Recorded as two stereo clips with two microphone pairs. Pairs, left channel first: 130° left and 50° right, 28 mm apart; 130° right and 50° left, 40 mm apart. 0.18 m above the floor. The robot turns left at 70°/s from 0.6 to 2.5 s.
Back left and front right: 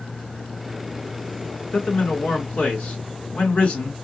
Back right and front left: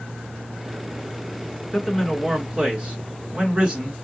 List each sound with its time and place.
1.7 s a man speaking: 160° left, 2.5 m; by 3.9 s 110° left, 2.5 m